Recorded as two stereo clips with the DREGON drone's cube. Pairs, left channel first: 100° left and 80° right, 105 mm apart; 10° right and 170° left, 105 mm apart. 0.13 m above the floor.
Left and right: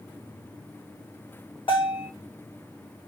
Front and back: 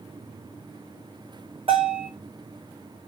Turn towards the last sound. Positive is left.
turn(degrees=140)